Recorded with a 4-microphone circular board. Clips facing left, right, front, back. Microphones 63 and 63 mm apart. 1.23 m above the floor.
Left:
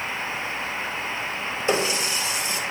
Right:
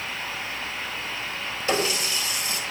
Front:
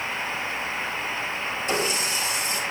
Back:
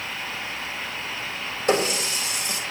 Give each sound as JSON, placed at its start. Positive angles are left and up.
{"t": 1.7, "sound": "a running tap", "azimuth_deg": 160, "distance_m": 3.5}